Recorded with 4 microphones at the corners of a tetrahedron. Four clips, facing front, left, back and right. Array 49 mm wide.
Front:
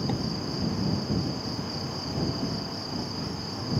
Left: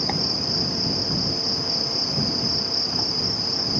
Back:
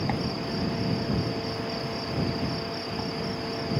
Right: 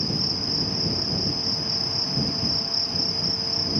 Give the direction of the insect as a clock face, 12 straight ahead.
8 o'clock.